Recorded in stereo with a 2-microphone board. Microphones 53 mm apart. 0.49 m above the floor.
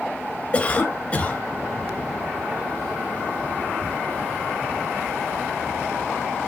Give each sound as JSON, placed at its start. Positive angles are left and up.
{"t": 0.5, "sound": "a cough", "side_deg": 25, "distance_m": 3.0}